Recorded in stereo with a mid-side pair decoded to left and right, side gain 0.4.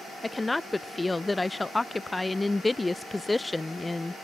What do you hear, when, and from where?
0.2 s a woman speaking: 15° left